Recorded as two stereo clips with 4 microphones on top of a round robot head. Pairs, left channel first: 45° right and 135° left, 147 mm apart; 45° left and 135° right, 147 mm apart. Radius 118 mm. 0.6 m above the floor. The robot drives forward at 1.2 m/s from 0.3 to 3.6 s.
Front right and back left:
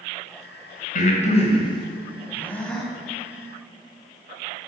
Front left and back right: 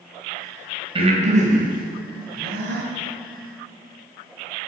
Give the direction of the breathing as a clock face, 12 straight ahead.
3 o'clock.